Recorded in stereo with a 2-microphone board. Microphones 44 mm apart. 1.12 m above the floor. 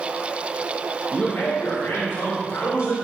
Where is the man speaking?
40° left (ahead or behind), 1.2 m; by 2.9 s 90° left, 3.5 m.